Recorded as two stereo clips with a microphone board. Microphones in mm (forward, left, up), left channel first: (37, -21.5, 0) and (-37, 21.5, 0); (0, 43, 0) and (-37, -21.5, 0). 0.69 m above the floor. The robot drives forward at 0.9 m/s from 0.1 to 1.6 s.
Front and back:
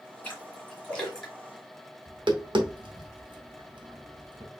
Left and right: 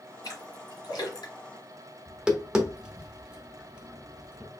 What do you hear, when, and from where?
0.2 s a splash: 35° left, 2.5 m; by 1.3 s 55° left, 1.6 m
2.1 s tapping: 160° left, 0.8 m